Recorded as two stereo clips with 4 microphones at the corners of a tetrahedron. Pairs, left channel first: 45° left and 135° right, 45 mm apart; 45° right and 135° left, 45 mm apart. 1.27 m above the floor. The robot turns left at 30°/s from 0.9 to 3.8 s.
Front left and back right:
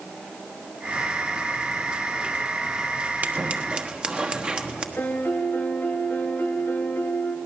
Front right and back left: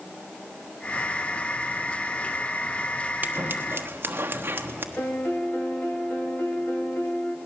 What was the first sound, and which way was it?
Scissors, 175° left.